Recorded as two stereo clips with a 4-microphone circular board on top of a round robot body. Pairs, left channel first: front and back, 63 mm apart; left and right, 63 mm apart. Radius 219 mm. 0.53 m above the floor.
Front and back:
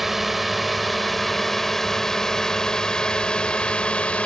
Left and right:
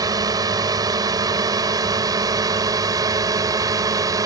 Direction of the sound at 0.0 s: 90° right.